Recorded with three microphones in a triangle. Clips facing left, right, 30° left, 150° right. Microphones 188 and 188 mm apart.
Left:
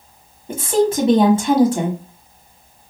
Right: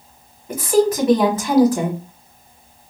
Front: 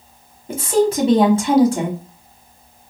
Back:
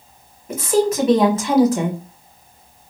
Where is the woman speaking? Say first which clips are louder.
Right 1 dB, front 1 dB; 55° left, 1.1 m.